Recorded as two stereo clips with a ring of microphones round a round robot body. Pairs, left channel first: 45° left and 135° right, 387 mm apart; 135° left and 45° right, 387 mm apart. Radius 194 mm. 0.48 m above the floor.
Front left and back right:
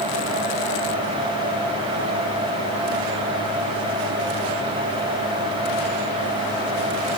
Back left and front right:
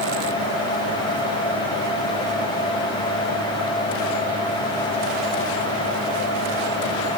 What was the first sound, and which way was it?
Only background noise.